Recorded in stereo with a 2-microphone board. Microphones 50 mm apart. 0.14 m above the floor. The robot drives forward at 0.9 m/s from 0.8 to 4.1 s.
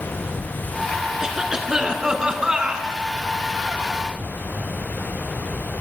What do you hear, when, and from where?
1.2 s a cough: 15° right (ahead or behind), 1.5 m